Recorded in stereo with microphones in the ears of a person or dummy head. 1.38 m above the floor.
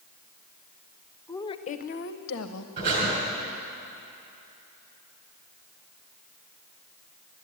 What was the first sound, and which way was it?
A woman speaking, 15° left (ahead or behind).